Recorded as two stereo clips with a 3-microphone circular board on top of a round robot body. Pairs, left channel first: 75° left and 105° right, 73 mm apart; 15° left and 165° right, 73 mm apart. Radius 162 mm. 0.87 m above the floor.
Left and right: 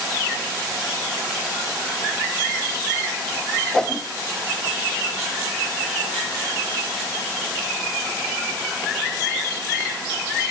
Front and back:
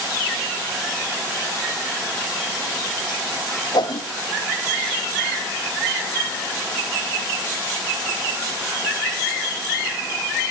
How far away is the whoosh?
About 1.0 m.